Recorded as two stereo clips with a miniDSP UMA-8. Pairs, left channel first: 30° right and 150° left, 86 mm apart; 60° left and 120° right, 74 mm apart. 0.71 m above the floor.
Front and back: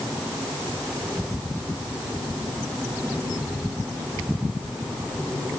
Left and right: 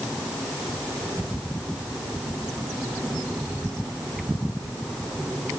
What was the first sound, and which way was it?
Only background noise.